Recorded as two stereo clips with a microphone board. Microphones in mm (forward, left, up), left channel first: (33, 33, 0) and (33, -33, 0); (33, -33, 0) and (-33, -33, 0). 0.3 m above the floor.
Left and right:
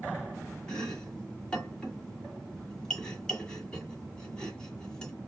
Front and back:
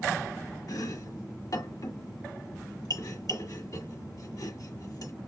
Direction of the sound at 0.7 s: 15° left.